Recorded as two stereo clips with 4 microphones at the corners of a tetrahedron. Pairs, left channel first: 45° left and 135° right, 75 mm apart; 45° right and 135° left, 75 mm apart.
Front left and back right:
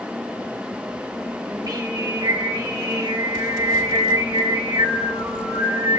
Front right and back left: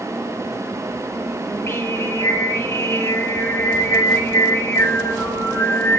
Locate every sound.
1.5 s singing: 100° right, 5 m